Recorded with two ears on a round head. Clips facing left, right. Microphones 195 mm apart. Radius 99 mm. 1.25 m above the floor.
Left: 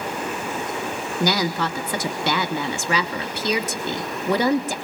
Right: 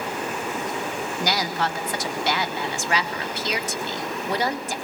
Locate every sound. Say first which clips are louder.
1.2 s a woman speaking: left 4 dB; 75° left (ahead or behind), 3 m